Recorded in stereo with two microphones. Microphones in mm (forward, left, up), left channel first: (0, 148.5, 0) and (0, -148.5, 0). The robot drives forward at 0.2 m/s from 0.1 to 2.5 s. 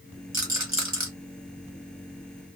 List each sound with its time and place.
0.3 s a rattle: 70° right (ahead or behind), 1.4 m; by 1.1 s 65° right (ahead or behind), 1.5 m